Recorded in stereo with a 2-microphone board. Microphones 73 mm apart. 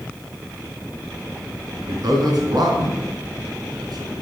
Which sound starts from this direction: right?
A man speaking, at 1.9 s.